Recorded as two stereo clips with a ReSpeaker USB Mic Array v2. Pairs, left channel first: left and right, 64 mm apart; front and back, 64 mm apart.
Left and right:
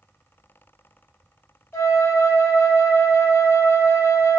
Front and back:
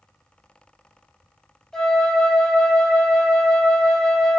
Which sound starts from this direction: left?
A flute, at 1.7 s.